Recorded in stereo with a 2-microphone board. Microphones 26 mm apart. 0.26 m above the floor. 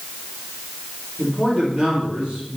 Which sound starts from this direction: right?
A man speaking, at 1.2 s.